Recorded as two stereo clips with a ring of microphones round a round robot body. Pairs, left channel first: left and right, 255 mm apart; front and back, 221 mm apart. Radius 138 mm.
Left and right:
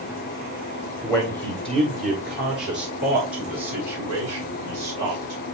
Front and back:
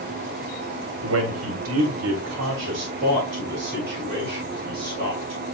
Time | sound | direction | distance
1.0 | a man speaking | 175° right | 1.6 m